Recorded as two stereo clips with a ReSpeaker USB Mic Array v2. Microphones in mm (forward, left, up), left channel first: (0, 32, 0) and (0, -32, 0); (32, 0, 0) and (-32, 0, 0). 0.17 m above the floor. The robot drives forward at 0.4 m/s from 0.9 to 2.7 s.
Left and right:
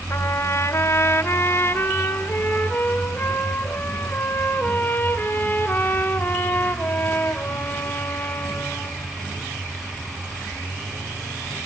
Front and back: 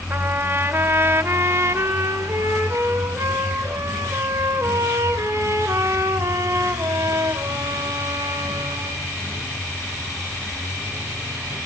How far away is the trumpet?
About 1.3 m.